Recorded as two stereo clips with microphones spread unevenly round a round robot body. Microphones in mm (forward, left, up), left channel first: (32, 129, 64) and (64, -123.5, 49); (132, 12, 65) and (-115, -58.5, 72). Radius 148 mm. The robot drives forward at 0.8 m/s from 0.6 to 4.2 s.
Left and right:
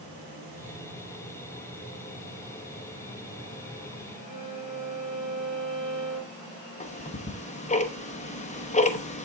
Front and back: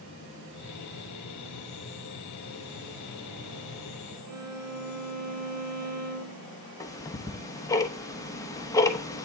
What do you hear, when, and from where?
4.3 s a violin: 150° right, 4.5 m
6.8 s ticking: 75° left, 0.9 m